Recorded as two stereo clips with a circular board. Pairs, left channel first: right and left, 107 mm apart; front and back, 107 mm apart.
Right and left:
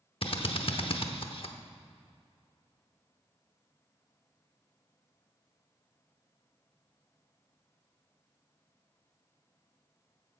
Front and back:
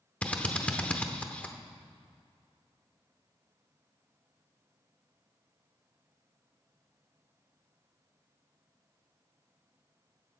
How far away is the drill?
About 0.8 m.